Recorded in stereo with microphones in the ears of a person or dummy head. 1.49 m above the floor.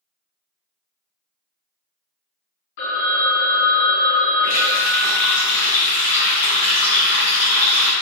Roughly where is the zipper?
No zipper in this recording.